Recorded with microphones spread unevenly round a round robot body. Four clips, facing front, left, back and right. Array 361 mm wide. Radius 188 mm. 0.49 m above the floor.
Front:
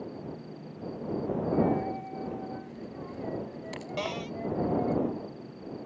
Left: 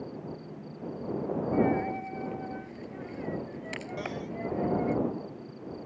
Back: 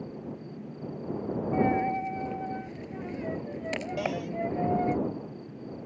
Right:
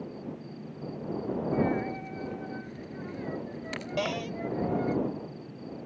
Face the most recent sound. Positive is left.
turn(degrees=-75)